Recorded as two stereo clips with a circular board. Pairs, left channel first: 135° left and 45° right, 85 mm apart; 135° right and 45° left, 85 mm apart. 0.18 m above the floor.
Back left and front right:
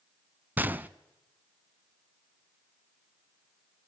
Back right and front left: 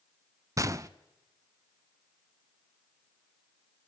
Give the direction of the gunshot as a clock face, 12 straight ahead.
12 o'clock.